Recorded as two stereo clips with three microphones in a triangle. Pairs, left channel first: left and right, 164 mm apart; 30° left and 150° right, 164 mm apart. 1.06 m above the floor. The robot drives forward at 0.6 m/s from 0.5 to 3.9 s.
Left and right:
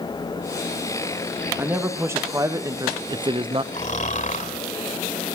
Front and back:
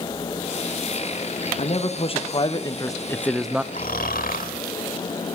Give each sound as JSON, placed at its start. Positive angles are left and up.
{"t": 1.6, "sound": "a man speaking", "azimuth_deg": -15, "distance_m": 1.5}
{"t": 3.7, "sound": "snoring", "azimuth_deg": 55, "distance_m": 1.9}